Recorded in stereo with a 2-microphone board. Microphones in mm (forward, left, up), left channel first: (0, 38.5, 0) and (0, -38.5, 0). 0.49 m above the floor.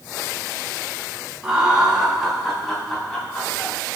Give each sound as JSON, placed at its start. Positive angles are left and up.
{"t": 1.4, "sound": "laughter", "side_deg": -10, "distance_m": 3.5}